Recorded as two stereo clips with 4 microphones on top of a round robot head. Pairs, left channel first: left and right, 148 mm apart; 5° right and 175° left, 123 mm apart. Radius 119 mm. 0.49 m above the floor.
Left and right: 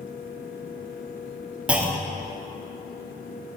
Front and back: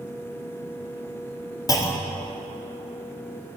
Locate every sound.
1.7 s a clunk: 15° right, 0.9 m